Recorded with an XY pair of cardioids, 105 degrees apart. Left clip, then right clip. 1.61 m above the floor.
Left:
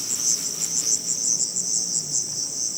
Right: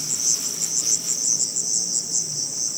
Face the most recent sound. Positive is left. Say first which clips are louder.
# right 1 dB
turn(degrees=-5)